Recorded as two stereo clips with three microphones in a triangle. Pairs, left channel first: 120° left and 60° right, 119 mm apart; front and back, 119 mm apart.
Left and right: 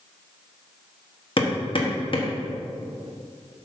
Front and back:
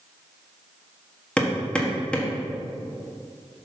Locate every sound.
1.4 s hammering: 80° left, 1.3 m